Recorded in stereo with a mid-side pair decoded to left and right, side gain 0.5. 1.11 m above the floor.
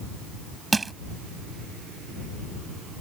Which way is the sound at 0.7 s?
25° right.